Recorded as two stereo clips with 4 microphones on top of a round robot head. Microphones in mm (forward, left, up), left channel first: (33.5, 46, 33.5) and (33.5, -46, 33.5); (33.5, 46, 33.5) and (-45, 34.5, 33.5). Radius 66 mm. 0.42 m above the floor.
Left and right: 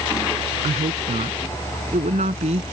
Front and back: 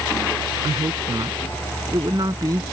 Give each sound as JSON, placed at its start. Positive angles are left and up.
{"t": 0.6, "sound": "a woman speaking", "azimuth_deg": -110}